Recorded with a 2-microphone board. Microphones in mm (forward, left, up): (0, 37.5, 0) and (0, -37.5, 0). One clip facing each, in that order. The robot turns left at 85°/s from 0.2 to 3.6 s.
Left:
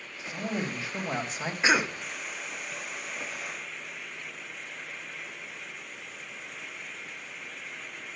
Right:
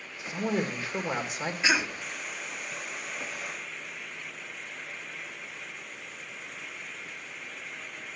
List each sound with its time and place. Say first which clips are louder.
0.2 s a man speaking: right 3 dB; 80° right, 1.9 m; by 1.5 s 165° left, 1.9 m
1.6 s a cough: left 3 dB; 145° left, 1.0 m; by 2.0 s 115° left, 1.0 m